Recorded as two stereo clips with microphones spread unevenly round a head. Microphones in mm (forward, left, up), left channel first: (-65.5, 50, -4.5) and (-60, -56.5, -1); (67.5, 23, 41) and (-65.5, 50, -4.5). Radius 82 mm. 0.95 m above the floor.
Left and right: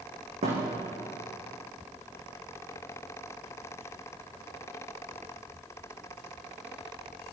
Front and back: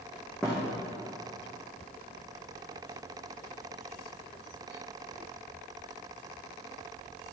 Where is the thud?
95° right, 9.5 m.